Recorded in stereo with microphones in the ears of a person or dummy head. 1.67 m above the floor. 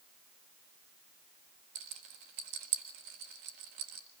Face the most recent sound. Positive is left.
turn(degrees=-45)  # may be behind; listen again after turning